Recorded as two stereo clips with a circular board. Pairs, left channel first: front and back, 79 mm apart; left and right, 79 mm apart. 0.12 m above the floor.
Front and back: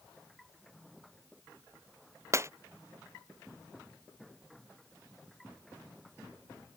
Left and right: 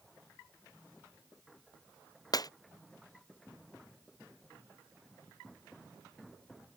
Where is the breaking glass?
125° left.